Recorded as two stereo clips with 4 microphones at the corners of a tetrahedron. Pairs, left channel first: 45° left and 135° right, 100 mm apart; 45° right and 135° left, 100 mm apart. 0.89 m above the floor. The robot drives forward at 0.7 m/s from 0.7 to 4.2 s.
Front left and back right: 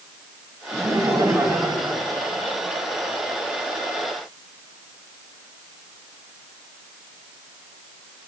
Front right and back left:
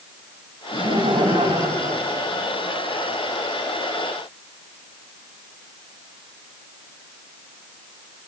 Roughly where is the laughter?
Behind.